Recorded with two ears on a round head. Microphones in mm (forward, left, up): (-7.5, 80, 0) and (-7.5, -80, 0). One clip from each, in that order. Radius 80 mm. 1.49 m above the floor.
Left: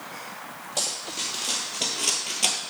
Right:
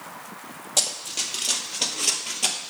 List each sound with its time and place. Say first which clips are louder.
0.8 s running footsteps: right 3 dB; 40° right (ahead or behind), 1.9 m; by 2.6 s 5° left (ahead or behind), 1.5 m